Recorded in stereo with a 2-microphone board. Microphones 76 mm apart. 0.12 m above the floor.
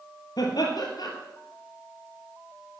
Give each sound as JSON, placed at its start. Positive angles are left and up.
{"t": 0.4, "sound": "laughter", "side_deg": 60, "distance_m": 3.0}